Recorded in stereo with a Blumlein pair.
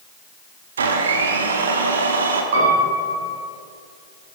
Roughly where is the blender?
Ahead right.